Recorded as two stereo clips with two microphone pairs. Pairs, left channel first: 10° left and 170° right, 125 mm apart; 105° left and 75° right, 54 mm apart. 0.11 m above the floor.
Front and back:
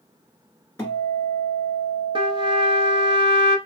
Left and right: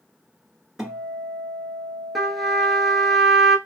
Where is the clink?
No clink in this recording.